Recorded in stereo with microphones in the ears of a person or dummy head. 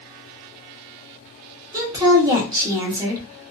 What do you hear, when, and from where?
1.7 s a woman speaking: 20° right (ahead or behind), 1.1 m